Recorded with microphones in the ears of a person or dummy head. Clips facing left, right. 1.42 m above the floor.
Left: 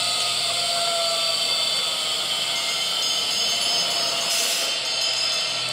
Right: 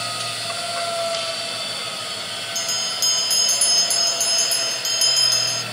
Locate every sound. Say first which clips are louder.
0.0 s a machine running: even; 25° right (ahead or behind), 1.3 m
2.5 s a bell: right 1 dB; 75° right (ahead or behind), 0.5 m